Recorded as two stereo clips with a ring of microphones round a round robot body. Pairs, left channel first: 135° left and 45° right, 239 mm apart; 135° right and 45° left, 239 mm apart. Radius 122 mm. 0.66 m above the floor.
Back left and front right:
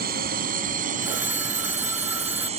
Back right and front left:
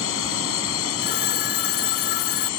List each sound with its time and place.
0.0 s a drone: 100° right; by 2.6 s 110° right
1.0 s a phone ringing: 125° right